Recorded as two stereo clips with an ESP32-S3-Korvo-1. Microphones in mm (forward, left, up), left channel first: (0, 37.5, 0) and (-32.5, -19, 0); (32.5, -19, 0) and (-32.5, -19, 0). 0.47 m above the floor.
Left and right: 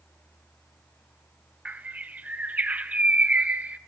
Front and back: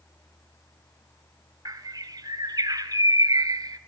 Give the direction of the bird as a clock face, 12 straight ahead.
6 o'clock.